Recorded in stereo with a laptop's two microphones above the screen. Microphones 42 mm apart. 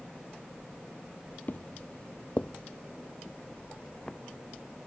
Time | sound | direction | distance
1.5 | footsteps | 40° left (ahead or behind) | ?